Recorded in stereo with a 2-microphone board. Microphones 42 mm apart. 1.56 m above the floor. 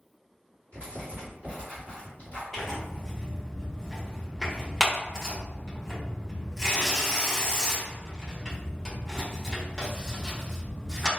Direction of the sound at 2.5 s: 10° left (ahead or behind).